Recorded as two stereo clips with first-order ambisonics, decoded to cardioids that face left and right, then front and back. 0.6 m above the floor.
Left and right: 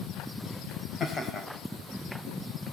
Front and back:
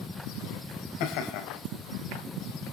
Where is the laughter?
20° left, 4 m.